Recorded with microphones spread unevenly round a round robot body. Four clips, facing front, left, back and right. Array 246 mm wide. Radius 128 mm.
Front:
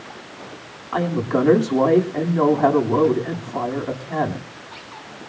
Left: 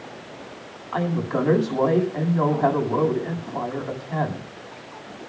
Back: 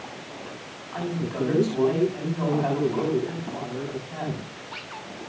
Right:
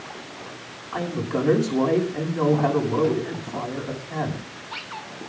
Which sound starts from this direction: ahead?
A woman speaking, at 0.9 s.